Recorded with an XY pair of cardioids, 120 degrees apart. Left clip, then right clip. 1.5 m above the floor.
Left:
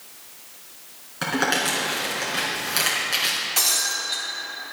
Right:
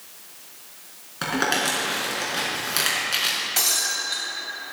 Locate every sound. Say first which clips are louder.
1.2 s crumpling: even; 5° right, 4.5 m
3.6 s breaking glass: left 1 dB; 5° right, 3.5 m